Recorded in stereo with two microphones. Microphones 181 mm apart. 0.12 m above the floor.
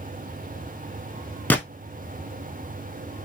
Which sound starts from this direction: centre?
A gunshot, at 1.5 s.